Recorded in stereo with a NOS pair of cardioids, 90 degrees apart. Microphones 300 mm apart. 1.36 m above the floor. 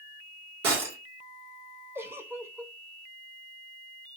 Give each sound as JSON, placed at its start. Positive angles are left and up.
{"t": 0.6, "sound": "breaking glass", "azimuth_deg": -60, "distance_m": 2.5}
{"t": 1.9, "sound": "a giggle", "azimuth_deg": -10, "distance_m": 0.7}